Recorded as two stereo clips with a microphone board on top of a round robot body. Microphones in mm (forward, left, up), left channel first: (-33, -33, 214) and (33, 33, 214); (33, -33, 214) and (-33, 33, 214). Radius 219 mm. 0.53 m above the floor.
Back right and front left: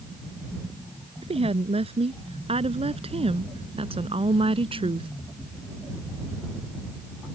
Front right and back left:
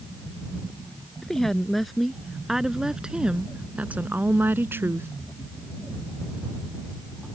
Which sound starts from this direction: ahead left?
A woman speaking, at 1.2 s.